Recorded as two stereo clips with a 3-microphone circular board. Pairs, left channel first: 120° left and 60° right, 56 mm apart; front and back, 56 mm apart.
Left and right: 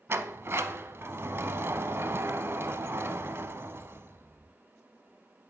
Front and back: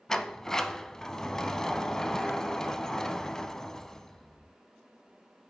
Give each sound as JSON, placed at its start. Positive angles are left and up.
{"t": 0.1, "sound": "a sliding door", "azimuth_deg": -75, "distance_m": 0.5}